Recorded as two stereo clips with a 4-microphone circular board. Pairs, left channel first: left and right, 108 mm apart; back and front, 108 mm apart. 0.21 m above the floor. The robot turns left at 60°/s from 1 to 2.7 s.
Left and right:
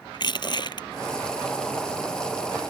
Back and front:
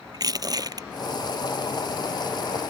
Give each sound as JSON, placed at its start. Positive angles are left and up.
{"t": 0.1, "sound": "crushing", "azimuth_deg": 50}